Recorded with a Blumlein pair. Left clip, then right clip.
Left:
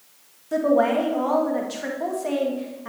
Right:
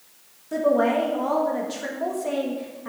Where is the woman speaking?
10° left, 1.5 m.